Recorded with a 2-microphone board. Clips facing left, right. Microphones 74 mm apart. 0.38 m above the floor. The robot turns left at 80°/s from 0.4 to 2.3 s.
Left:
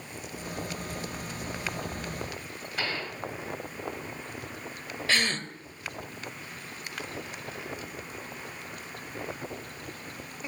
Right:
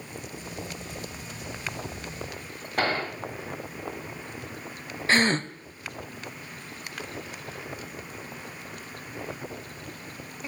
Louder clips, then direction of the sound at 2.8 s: Right 7 dB; 55° right (ahead or behind).